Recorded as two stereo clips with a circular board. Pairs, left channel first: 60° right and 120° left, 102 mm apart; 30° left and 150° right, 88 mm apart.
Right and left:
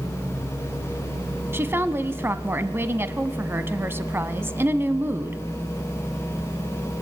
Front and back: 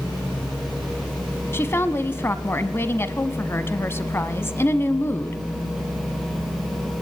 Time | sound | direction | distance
1.5 | a woman speaking | 70° left | 1.1 m